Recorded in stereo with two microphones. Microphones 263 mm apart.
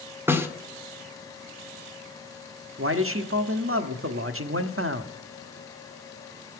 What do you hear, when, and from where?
0.3 s a snare drum: 10° right (ahead or behind), 1.3 m
2.8 s a man speaking: 55° right (ahead or behind), 1.1 m